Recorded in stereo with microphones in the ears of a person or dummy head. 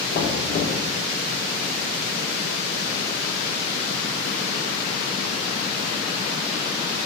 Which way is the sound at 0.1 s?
35° left (ahead or behind).